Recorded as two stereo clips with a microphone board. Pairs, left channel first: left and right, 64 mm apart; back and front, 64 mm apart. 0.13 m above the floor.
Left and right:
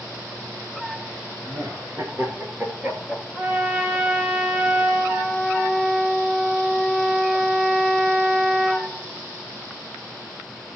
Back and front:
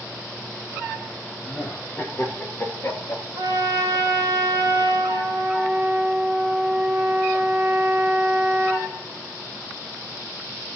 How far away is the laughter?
About 3.5 m.